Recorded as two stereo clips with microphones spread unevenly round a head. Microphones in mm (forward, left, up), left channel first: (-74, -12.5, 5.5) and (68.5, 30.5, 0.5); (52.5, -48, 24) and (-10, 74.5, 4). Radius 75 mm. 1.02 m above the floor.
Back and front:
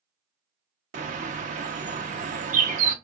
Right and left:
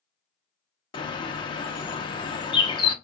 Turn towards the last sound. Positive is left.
turn(degrees=-20)